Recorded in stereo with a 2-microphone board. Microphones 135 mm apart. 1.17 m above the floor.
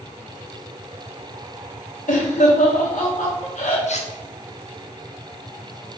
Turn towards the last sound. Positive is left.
turn(degrees=60)  # may be behind; listen again after turning